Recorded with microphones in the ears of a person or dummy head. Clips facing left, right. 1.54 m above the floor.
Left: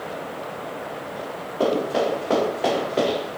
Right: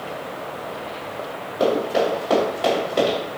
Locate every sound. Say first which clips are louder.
1.6 s running footsteps: right 2 dB; 30° left (ahead or behind), 1.8 m; by 3.2 s 5° right (ahead or behind), 1.7 m